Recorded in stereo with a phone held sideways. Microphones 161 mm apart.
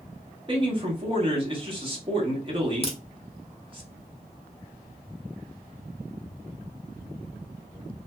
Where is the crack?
40° left (ahead or behind), 0.7 m.